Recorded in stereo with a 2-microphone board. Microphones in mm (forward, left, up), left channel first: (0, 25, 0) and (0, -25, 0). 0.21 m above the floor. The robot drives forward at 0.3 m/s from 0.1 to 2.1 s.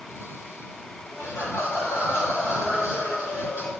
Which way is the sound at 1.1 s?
45° left (ahead or behind).